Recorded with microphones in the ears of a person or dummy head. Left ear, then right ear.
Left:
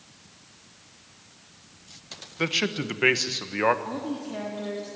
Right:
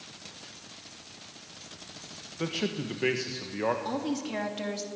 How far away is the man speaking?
About 1.3 m.